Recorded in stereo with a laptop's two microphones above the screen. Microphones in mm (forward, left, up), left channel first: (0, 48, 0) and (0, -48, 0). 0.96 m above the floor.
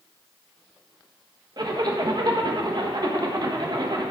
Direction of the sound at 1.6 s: 45° right (ahead or behind).